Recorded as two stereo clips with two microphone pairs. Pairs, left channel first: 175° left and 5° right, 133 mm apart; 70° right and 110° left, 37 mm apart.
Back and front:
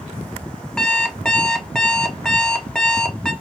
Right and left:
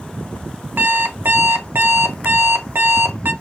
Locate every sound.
0.8 s an alarm clock: 90° left, 0.7 m